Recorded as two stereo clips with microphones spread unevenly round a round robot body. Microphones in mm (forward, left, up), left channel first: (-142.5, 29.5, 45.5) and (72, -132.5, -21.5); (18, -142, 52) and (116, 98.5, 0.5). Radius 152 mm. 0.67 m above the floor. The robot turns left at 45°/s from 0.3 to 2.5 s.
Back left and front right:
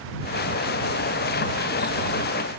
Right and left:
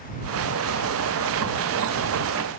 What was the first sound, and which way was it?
Only background noise.